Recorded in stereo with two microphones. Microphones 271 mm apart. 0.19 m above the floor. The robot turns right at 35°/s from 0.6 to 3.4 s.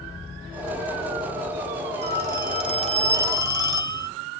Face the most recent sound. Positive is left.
turn(degrees=-15)